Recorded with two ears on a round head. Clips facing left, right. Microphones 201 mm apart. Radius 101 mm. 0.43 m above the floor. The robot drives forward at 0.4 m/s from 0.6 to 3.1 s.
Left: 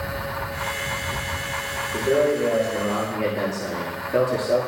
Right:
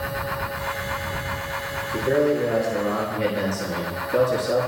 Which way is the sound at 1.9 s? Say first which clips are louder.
Even; 45° right (ahead or behind).